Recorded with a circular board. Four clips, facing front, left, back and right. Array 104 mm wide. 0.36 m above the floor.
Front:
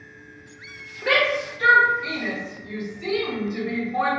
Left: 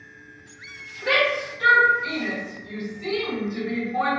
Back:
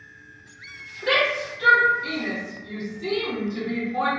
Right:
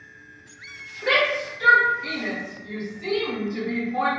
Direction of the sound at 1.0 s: 5° right.